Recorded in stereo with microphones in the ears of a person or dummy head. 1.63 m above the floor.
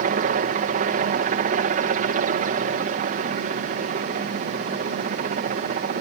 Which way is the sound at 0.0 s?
40° right (ahead or behind).